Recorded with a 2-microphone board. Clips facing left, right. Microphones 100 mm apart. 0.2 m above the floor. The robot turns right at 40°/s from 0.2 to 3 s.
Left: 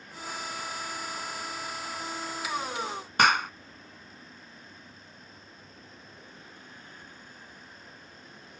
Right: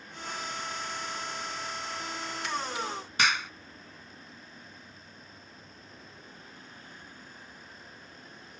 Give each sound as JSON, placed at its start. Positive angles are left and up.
{"t": 3.2, "sound": "a clap", "side_deg": 55}